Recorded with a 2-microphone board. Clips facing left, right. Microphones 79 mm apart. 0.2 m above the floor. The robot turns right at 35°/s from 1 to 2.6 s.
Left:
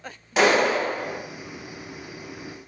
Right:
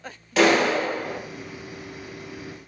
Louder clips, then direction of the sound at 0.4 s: Right 1 dB; 20° left (ahead or behind).